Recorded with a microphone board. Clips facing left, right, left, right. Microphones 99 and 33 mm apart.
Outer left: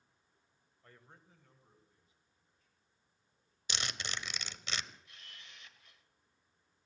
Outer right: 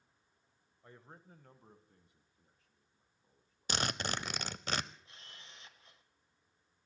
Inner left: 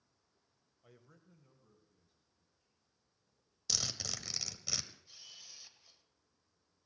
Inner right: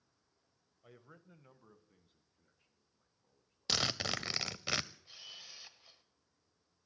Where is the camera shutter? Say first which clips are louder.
Outer right 1 dB, inner right 4 dB; 30° right (ahead or behind), 1.1 m.